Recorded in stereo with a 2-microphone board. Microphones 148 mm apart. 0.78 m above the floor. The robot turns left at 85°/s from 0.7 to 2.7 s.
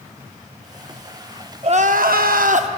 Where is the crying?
40° right, 0.6 m; by 2.7 s 130° right, 0.6 m.